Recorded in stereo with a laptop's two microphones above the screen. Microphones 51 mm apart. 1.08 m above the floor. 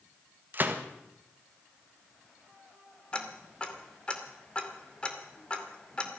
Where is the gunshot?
45° right (ahead or behind), 1.6 m.